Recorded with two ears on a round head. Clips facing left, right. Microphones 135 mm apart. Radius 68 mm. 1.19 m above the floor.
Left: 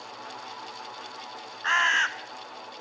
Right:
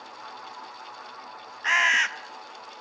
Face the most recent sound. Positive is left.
turn(degrees=-15)  # may be behind; listen again after turning